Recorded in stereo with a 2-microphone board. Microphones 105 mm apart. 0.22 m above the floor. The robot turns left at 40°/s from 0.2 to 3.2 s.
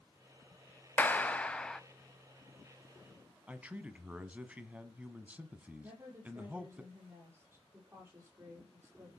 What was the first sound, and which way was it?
A clap, 20° left (ahead or behind).